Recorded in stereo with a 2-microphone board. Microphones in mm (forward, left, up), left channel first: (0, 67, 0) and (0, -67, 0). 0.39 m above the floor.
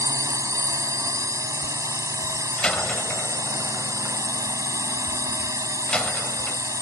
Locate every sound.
0.0 s a drone: 25° right (ahead or behind)
2.6 s a door slam: 10° left (ahead or behind)